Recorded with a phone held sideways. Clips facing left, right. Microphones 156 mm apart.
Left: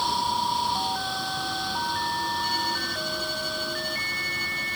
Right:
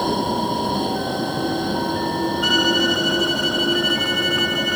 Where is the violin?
85° right.